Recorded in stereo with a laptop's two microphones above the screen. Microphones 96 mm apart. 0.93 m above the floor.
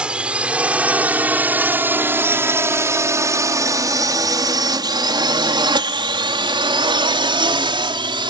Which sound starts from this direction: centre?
A drone, at 0.0 s.